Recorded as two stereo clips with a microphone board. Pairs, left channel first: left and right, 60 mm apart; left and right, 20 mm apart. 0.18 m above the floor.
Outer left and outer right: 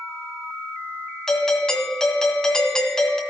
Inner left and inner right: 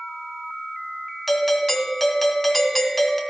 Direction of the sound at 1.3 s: 10° left (ahead or behind).